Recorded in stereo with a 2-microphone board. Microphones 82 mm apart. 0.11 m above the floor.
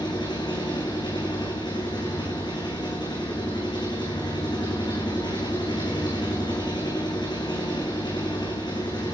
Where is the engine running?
65° left (ahead or behind), 3.5 m.